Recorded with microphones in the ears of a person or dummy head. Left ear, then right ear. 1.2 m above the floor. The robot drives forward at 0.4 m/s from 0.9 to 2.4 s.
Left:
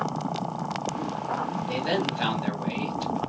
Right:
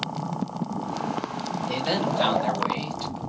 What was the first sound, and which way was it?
A man speaking, 5° right (ahead or behind).